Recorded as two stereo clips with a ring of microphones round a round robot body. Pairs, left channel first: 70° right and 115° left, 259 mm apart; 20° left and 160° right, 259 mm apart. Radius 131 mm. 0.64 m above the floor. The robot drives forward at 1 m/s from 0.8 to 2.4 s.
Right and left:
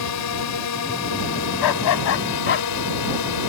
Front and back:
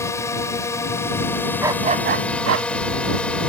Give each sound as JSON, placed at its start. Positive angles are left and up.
{"t": 0.0, "sound": "a drone", "azimuth_deg": -55}
{"t": 1.6, "sound": "a dog barking", "azimuth_deg": -75}